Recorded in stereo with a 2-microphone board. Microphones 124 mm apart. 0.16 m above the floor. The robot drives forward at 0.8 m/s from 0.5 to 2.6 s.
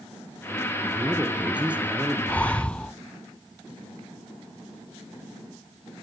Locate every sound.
0.9 s a man speaking: 10° right (ahead or behind), 3 m
2.3 s breathing: 10° left (ahead or behind), 0.5 m